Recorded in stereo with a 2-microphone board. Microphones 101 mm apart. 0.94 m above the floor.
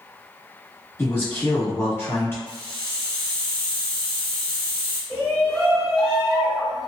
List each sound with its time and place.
1.0 s a man speaking: 25° left (ahead or behind), 1.4 m
2.5 s a hiss: 15° left (ahead or behind), 1.3 m
5.1 s a shout: centre (ahead or behind), 1.3 m